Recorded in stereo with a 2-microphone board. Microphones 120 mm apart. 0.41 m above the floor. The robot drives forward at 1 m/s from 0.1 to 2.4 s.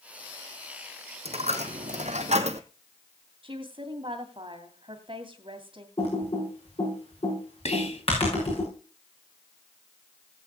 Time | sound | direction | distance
1.2 | a dropped coin | 60° right (ahead or behind) | 1.4 m
3.4 | a woman speaking | 45° right (ahead or behind) | 2.5 m
6.0 | typing on a keyboard | 55° left (ahead or behind) | 6.5 m
7.7 | whispering | 65° left (ahead or behind) | 3 m